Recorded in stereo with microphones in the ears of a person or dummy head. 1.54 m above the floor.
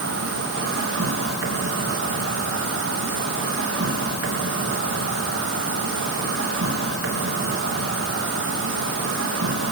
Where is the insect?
60° right (ahead or behind), 3 m.